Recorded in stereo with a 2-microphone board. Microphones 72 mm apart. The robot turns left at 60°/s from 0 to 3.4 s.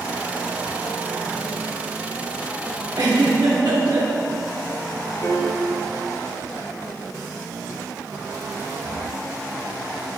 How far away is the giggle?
About 1.8 m.